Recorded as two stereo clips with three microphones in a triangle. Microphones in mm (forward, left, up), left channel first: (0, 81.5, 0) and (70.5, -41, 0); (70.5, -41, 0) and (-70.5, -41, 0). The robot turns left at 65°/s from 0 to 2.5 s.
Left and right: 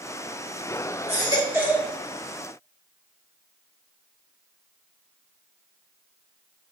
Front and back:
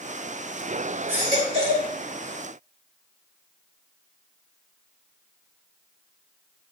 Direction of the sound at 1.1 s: 100° right.